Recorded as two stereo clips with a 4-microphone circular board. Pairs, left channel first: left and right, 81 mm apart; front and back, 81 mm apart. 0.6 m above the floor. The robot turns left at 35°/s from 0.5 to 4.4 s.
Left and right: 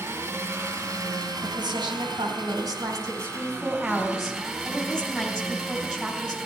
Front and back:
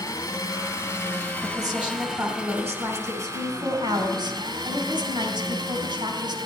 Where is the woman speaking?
85° right, 3.5 m; by 6.3 s 175° left, 3.5 m.